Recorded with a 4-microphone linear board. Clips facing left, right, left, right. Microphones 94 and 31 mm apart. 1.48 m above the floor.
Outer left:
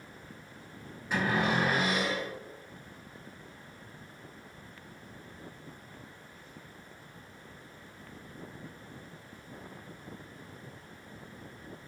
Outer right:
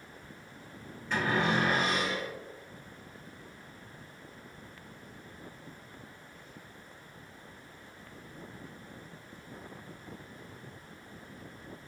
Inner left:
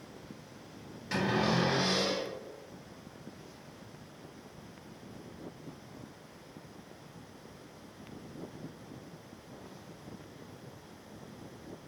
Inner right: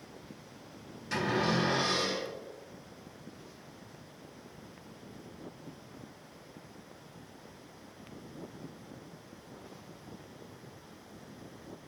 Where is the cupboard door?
10° left (ahead or behind), 1.7 m.